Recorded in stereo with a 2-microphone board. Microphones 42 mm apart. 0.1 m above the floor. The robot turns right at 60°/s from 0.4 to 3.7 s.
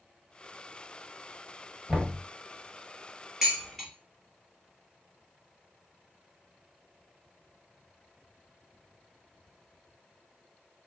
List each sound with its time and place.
1.9 s knocking: 35° right (ahead or behind), 1.3 m; by 2.2 s 20° right (ahead or behind), 1.3 m
3.4 s dishes clattering: 15° right (ahead or behind), 1.4 m; by 3.9 s 5° right (ahead or behind), 1.4 m